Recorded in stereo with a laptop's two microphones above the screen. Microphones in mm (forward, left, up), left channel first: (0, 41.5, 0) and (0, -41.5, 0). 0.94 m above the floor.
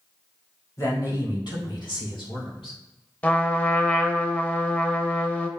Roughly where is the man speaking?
Left.